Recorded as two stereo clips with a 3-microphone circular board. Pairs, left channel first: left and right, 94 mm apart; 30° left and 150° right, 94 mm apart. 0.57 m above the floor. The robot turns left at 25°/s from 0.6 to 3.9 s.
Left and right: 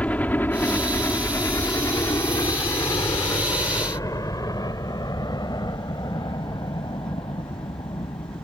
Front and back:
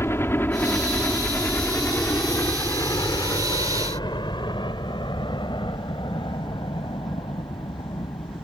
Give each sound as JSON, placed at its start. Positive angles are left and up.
{"t": 0.0, "sound": "a helicopter", "azimuth_deg": 35}